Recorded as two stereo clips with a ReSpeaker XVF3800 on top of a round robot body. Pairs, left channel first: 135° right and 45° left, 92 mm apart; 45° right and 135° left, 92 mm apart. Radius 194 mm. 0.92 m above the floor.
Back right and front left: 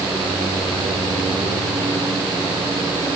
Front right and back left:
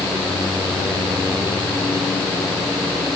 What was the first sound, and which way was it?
Only background noise.